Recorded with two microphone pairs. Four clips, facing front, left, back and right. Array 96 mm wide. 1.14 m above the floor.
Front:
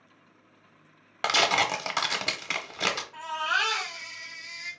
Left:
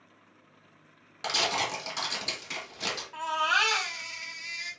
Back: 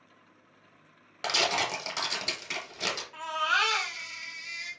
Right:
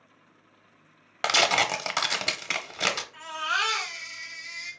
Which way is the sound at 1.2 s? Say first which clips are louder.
Right 6 dB, front 5 dB; 60° right.